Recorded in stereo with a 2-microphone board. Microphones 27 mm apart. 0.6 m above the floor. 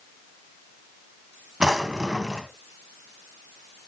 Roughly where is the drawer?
Right.